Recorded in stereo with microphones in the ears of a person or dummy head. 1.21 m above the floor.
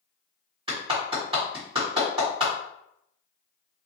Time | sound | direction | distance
0.7 | a clap | 25° right (ahead or behind) | 1.5 m